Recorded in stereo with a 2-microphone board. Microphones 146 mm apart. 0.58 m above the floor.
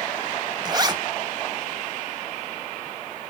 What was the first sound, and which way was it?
A zipper, 30° right (ahead or behind).